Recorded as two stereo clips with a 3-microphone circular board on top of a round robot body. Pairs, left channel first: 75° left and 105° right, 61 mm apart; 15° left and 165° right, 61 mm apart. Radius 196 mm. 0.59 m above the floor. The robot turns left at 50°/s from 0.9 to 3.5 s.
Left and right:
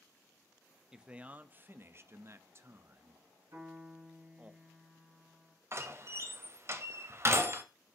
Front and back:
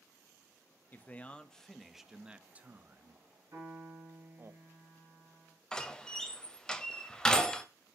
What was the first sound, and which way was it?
A man speaking, 30° right.